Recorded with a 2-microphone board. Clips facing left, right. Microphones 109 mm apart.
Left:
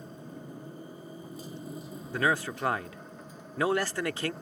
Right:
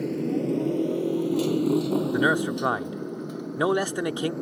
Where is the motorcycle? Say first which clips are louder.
Right 19 dB; 85° right; by 4.4 s 70° right (ahead or behind).